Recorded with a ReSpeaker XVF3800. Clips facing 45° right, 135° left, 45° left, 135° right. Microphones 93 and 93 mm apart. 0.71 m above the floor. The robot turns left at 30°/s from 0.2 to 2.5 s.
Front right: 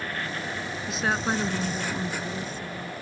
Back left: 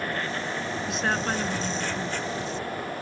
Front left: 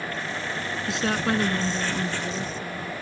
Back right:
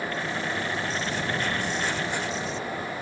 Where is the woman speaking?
45° left; by 2.9 s 5° right.